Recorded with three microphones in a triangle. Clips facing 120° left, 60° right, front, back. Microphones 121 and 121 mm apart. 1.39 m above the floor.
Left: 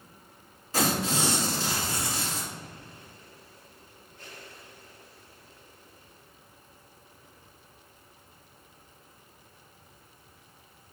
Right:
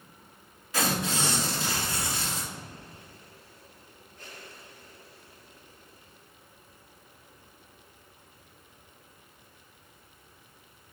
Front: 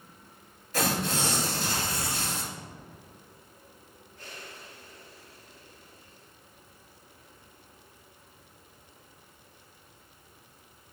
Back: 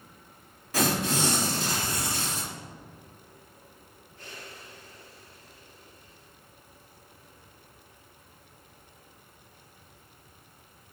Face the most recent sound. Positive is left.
turn(degrees=175)